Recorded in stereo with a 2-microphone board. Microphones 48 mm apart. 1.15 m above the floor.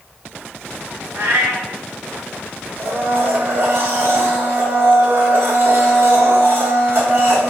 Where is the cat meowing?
75° right (ahead or behind), 2 m.